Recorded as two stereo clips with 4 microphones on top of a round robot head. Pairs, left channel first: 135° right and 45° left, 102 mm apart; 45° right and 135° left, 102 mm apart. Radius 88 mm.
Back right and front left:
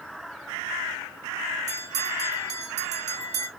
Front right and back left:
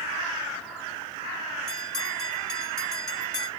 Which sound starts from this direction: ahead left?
A bell, at 1.7 s.